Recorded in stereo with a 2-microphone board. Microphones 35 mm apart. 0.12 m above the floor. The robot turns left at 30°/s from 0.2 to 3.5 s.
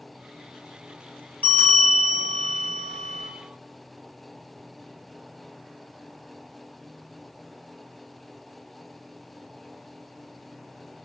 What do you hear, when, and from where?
1.4 s a bell: 85° left, 1.5 m; by 3.3 s 30° left, 1.5 m